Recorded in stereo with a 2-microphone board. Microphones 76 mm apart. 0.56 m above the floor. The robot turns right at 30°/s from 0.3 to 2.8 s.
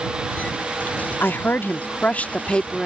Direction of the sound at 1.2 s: 110° left.